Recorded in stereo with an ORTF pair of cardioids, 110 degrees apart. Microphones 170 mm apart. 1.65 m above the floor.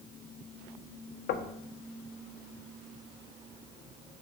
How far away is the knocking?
About 1.4 m.